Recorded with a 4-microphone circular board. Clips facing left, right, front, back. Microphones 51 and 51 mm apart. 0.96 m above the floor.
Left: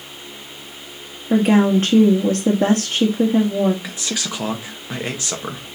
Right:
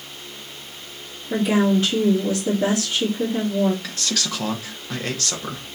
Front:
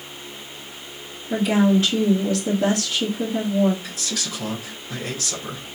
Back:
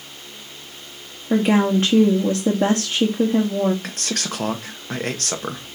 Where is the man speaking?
160° left, 1.3 m.